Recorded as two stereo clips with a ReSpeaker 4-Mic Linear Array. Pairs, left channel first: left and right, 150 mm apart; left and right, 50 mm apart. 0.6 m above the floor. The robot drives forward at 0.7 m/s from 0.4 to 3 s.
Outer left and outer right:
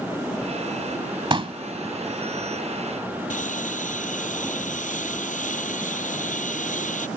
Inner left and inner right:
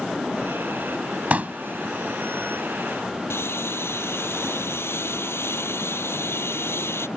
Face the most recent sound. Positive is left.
turn(degrees=60)  # may be behind; listen again after turning